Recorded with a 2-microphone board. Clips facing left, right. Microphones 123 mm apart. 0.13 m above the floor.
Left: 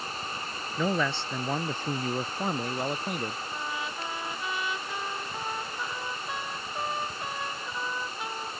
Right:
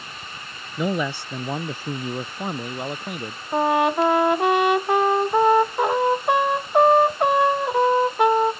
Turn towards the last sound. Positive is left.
turn(degrees=-70)  # may be behind; listen again after turning